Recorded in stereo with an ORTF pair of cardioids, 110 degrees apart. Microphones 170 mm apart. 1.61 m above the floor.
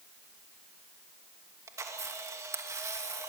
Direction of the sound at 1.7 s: 15° right.